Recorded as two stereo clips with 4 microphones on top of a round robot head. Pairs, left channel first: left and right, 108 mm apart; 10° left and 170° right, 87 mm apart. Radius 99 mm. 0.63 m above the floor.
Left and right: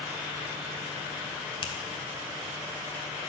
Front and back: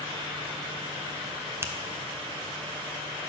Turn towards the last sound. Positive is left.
turn(degrees=130)